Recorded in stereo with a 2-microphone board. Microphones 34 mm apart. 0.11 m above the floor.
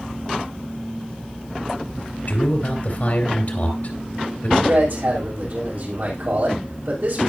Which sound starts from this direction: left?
A man speaking, at 2.3 s.